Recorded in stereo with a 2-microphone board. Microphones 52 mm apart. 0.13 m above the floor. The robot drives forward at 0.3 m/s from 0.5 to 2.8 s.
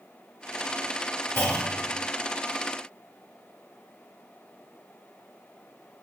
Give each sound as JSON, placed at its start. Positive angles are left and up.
{"t": 1.4, "sound": "a clunk", "side_deg": 45, "distance_m": 1.4}